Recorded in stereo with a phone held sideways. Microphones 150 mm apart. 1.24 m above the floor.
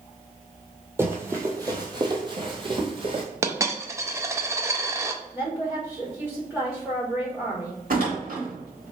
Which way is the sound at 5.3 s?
10° right (ahead or behind).